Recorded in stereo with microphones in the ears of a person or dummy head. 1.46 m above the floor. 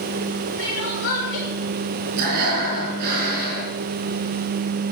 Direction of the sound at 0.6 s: 60° left (ahead or behind).